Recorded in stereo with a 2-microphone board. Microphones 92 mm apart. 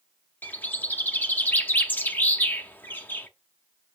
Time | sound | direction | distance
0.4 | a bird | 20° left (ahead or behind) | 1.0 m